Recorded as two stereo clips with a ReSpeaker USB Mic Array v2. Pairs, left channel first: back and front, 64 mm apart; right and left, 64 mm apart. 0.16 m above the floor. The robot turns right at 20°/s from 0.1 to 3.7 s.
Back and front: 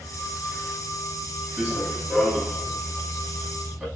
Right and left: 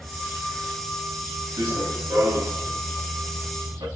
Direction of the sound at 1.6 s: 75° left.